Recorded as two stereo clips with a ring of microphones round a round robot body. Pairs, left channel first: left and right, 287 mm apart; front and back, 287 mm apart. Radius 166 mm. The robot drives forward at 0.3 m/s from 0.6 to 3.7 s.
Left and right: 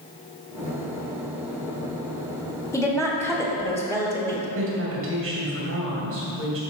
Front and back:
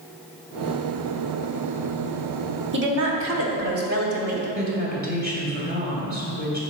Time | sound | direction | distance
2.7 | a woman speaking | 165° left | 1.1 m
4.5 | a woman speaking | 125° right | 2 m